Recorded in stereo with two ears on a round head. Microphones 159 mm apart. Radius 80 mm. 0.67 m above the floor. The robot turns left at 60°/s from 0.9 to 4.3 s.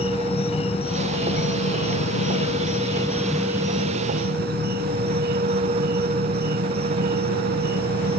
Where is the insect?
145° left; by 8.2 s 60° right.